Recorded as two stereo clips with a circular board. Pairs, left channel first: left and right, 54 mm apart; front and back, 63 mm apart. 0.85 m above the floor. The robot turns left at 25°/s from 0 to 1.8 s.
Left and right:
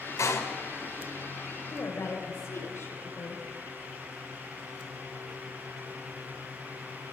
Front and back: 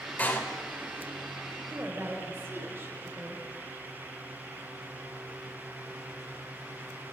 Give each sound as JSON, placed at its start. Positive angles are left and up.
{"t": 0.2, "sound": "a door slam", "azimuth_deg": 60, "distance_m": 2.5}
{"t": 1.7, "sound": "a woman speaking", "azimuth_deg": 130, "distance_m": 3.0}